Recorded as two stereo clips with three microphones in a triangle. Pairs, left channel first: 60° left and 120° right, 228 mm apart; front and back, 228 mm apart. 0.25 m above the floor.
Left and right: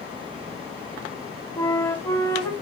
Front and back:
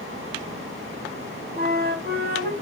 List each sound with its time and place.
1.6 s a flute: 135° left, 0.5 m